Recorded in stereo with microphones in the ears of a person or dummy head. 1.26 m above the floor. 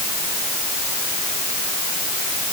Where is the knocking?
I don't hear knocking.